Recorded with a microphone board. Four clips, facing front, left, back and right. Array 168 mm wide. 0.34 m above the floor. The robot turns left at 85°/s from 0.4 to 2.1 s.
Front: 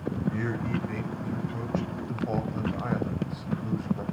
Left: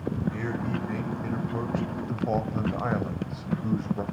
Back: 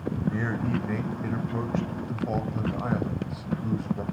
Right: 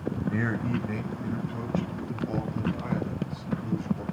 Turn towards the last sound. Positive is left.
turn(degrees=95)